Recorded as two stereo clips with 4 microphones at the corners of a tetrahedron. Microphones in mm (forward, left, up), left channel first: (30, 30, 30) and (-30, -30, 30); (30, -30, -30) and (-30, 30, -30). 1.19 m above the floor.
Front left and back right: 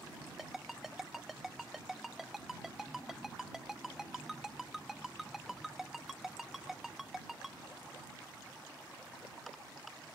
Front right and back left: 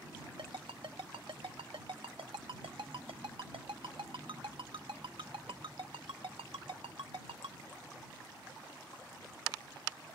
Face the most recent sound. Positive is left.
turn(degrees=140)